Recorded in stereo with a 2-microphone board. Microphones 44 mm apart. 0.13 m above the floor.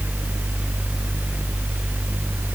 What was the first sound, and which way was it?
Only background noise.